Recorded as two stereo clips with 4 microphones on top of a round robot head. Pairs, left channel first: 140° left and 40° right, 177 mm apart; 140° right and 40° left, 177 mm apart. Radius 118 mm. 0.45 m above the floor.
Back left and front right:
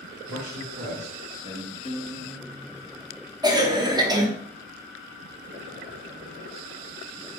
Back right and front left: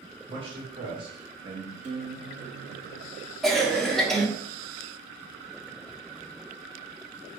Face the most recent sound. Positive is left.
turn(degrees=-55)